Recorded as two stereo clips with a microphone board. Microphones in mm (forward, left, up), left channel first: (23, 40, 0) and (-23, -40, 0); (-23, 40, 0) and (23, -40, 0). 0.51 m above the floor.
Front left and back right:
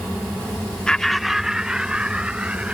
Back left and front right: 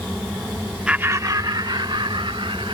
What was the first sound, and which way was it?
Laughter, straight ahead.